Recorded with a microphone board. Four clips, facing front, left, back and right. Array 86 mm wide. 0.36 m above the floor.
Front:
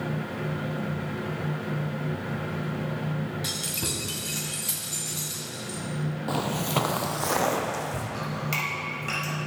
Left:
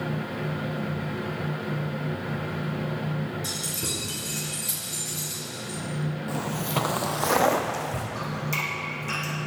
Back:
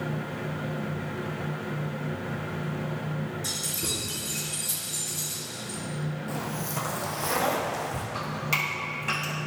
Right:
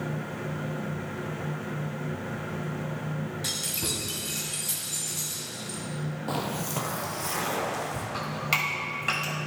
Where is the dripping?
95° right, 2 m.